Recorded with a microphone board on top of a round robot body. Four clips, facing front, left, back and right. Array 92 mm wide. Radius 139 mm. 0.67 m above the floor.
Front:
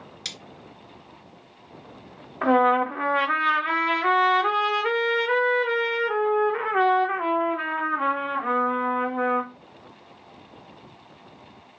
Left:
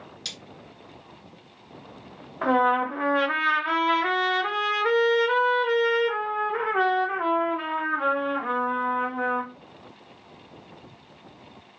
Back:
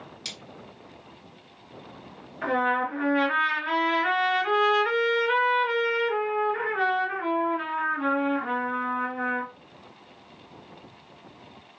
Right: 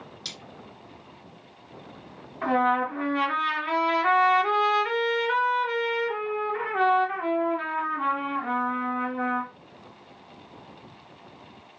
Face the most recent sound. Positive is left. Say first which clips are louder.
# left 2 dB, front 6 dB
turn(degrees=30)